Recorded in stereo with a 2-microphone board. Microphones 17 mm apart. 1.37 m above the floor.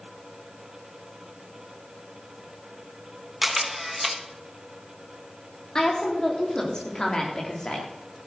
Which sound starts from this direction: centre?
A camera shutter, at 3.4 s.